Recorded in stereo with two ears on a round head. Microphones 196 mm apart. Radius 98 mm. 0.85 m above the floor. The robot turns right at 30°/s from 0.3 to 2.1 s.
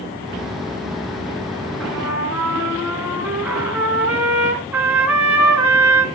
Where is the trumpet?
5° left (ahead or behind), 3 m; by 6.1 s 5° right (ahead or behind), 3 m.